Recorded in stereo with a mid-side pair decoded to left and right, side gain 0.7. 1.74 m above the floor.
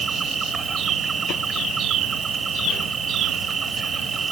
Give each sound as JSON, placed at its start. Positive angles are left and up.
{"t": 0.0, "sound": "an insect", "azimuth_deg": -25}